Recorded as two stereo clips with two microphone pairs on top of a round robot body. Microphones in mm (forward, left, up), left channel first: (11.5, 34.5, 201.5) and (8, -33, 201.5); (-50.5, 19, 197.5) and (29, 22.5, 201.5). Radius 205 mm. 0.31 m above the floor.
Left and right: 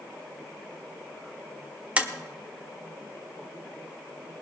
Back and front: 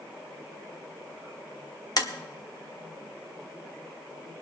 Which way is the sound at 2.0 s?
160° right.